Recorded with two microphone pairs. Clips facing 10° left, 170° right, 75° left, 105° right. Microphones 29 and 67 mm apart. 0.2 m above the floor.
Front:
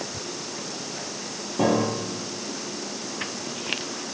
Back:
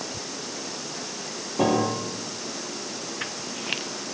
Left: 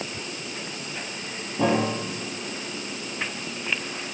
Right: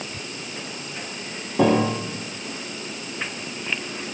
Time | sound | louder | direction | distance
1.6 | a piano | even, right 4 dB | 90° right | 4 m